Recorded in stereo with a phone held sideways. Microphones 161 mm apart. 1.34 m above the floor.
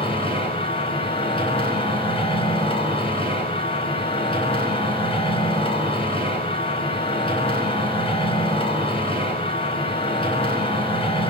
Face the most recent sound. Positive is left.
turn(degrees=35)  # may be behind; listen again after turning